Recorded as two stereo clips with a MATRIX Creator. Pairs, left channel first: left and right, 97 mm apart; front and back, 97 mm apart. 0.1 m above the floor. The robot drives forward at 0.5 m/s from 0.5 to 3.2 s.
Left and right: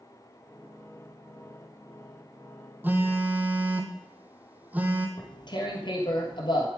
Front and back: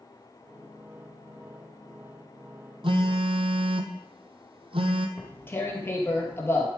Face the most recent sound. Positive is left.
turn(degrees=65)